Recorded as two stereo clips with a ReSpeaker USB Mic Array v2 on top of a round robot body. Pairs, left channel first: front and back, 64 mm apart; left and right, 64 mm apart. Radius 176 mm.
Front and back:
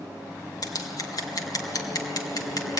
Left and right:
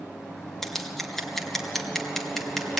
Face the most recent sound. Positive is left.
turn(degrees=5)